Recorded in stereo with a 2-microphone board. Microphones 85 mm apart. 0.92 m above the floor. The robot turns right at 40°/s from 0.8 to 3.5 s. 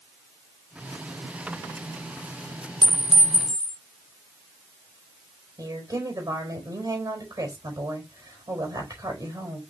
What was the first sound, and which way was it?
A clink, 65° right (ahead or behind).